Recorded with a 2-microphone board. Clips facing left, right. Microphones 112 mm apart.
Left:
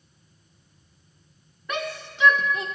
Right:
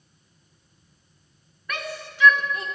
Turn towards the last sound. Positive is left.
turn(degrees=20)  # may be behind; listen again after turning